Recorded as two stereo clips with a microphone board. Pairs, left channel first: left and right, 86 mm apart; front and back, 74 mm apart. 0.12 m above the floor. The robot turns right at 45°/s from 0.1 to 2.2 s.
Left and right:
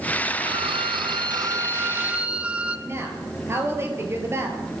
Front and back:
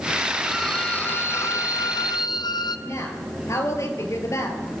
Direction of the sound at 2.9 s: 35° right.